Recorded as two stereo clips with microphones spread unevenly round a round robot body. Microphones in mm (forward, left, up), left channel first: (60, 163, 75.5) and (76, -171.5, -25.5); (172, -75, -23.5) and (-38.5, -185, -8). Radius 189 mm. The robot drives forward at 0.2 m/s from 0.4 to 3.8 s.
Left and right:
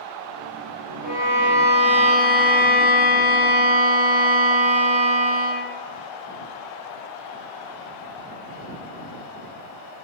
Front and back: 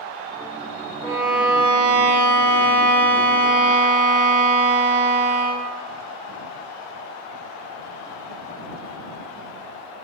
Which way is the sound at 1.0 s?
100° left.